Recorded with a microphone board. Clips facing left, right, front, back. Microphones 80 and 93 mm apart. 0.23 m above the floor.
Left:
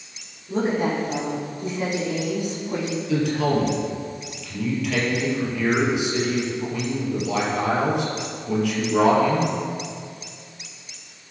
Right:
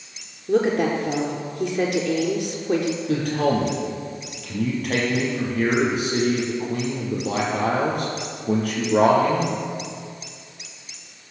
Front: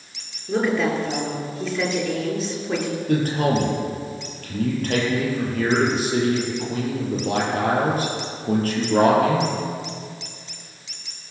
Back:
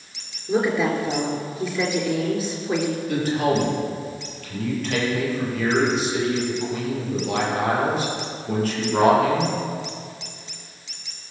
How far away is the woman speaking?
About 3.5 m.